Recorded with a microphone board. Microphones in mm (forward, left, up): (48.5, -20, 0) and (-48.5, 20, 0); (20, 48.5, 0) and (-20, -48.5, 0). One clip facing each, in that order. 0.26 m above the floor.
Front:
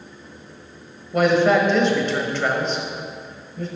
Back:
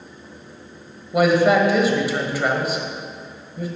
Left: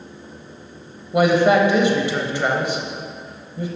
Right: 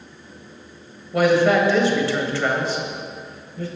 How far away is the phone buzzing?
I don't hear a phone buzzing.